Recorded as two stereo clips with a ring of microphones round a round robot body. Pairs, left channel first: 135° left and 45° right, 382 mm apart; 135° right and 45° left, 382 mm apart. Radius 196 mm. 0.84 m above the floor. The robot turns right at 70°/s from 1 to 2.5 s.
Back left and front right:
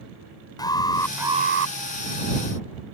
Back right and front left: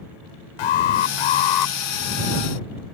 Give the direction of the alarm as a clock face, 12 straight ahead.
5 o'clock.